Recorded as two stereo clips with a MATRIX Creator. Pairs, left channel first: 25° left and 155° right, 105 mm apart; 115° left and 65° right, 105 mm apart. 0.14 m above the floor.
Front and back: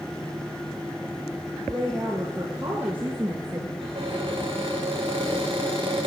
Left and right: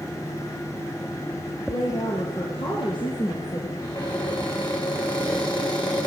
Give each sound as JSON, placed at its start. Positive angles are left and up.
{"t": 1.7, "sound": "a woman speaking", "azimuth_deg": 120, "distance_m": 4.5}
{"t": 3.8, "sound": "a cupboard door", "azimuth_deg": 160, "distance_m": 6.5}